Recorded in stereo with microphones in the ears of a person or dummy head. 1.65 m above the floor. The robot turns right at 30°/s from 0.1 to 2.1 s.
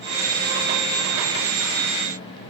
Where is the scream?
No scream in this recording.